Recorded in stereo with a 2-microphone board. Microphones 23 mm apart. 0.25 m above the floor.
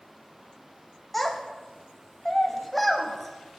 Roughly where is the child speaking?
Centre.